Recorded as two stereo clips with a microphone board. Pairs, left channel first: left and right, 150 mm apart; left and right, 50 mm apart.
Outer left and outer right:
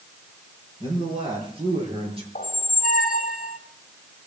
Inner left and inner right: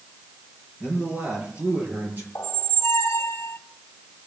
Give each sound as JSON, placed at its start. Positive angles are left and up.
{"t": 0.8, "sound": "a man speaking", "side_deg": -30, "distance_m": 6.5}
{"t": 2.4, "sound": "a squeak", "side_deg": 65, "distance_m": 0.6}